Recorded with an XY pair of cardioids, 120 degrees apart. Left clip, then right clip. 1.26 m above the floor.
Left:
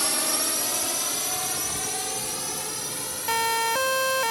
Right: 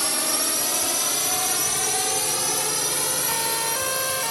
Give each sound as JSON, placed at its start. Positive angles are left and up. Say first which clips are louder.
{"t": 0.0, "sound": "a drone", "louder": "right 1 dB", "azimuth_deg": -5}
{"t": 3.3, "sound": "a siren", "louder": "left 2 dB", "azimuth_deg": 25}